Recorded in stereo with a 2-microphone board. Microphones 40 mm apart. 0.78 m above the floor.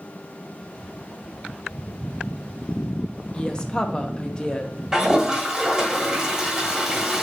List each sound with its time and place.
3.3 s a woman speaking: 20° left (ahead or behind), 0.7 m
4.9 s a toilet flushing: 15° right (ahead or behind), 1.4 m